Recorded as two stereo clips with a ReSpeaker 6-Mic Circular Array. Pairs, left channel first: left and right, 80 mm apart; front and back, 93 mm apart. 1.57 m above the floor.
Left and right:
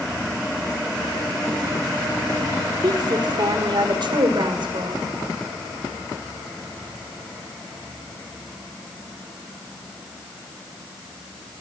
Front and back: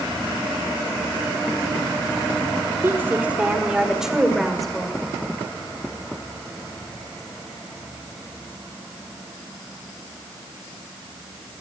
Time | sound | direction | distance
2.8 | a woman speaking | 115° right | 4 m